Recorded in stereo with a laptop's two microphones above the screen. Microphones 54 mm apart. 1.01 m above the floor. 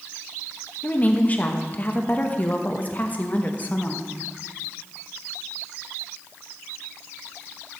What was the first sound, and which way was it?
A woman speaking, 30° left (ahead or behind).